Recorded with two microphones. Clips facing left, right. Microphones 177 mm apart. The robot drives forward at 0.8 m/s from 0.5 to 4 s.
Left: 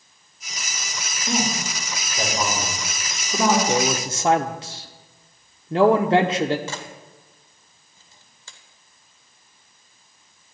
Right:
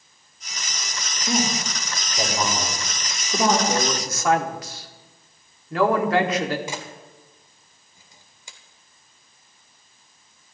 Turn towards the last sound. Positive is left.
turn(degrees=-15)  # may be behind; listen again after turning